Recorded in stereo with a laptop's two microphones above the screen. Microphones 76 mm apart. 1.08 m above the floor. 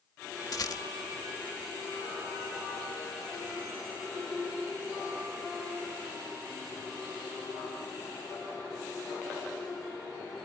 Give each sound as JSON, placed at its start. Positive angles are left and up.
{"t": 0.5, "sound": "a rattle", "side_deg": 55}